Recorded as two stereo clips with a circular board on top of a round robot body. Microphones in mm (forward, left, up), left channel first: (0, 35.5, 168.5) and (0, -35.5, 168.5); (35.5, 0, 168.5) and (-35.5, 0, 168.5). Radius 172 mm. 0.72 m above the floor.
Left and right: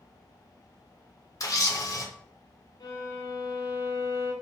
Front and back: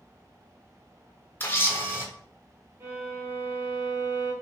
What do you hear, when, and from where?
1.4 s a camera shutter: 60° left, 1.5 m
2.8 s a violin: 125° left, 1.4 m